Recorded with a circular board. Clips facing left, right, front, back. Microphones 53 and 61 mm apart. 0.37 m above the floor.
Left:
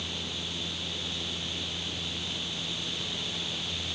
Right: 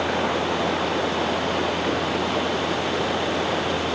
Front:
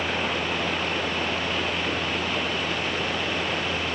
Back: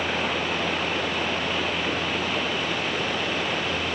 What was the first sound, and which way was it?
Running water, 95° right.